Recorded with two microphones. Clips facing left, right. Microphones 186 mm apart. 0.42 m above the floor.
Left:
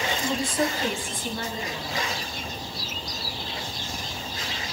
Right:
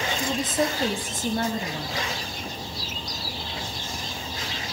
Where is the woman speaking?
10° right (ahead or behind), 2.5 m; by 2.0 s 65° right (ahead or behind), 3 m.